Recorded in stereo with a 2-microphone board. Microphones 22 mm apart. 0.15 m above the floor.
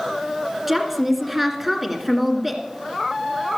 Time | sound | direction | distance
0.7 | a woman speaking | 10° right (ahead or behind) | 2 m